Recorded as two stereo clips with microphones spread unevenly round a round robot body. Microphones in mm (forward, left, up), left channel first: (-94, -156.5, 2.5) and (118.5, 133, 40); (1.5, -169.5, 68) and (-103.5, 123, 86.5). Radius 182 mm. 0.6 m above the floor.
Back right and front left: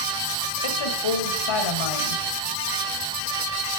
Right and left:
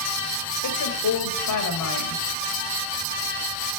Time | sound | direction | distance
0.6 | a woman speaking | 100° right | 3 m